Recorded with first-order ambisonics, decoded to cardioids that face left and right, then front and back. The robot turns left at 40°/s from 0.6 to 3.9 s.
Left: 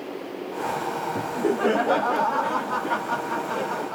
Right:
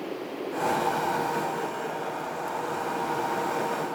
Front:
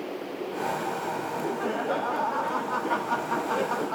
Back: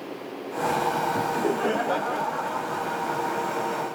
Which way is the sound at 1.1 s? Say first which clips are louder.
Left 3 dB, back 5 dB; 125° left.